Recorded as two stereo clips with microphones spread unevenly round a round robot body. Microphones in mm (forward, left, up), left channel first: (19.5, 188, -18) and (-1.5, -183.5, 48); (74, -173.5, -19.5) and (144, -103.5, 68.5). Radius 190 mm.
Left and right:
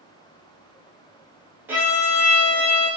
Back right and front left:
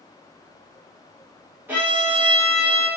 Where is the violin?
170° left, 0.6 m.